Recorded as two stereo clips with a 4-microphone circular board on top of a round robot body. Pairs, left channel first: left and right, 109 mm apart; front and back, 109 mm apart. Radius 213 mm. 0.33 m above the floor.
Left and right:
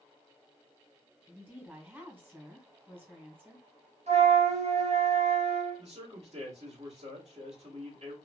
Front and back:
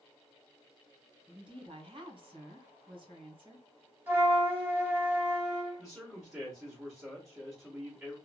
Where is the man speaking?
110° right, 1.8 m.